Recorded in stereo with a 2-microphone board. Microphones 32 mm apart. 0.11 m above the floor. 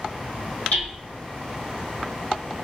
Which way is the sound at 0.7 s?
60° left (ahead or behind).